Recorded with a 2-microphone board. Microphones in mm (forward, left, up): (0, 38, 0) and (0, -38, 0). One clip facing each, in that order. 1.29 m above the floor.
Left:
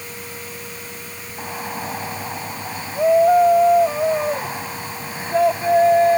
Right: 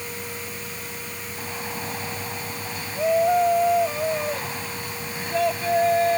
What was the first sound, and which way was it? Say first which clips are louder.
A shout: left 5 dB; 25° left (ahead or behind).